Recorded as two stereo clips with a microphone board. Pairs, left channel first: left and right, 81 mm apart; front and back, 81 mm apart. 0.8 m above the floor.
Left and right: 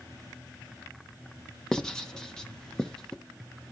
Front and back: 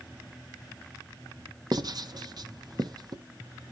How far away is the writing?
About 0.7 m.